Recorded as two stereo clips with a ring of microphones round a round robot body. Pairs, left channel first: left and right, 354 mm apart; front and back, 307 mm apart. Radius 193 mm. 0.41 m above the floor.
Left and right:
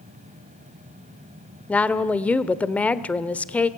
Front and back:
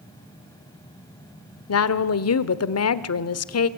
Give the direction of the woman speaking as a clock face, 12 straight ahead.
12 o'clock.